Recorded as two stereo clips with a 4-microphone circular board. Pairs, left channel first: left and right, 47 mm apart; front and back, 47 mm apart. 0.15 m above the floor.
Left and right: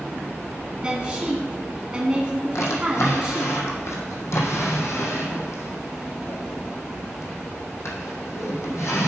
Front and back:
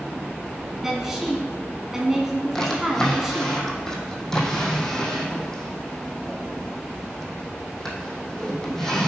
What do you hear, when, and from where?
0.8 s a woman speaking: 110° right, 1.1 m
2.5 s a drawer: 80° left, 1.5 m